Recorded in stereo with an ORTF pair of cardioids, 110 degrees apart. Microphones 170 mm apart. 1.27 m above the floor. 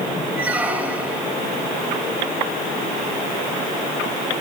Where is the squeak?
10° right, 3 m.